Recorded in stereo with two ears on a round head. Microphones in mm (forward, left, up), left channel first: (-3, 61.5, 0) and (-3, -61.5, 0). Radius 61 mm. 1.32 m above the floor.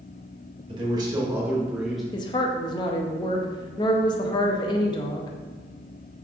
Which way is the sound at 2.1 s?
30° left (ahead or behind).